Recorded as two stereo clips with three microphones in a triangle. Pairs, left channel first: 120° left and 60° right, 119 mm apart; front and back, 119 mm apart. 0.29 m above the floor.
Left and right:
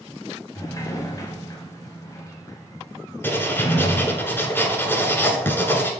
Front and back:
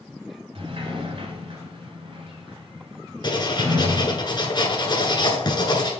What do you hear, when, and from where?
0.6 s a sliding door: 170° left, 1.1 m
3.2 s writing: 50° left, 1.1 m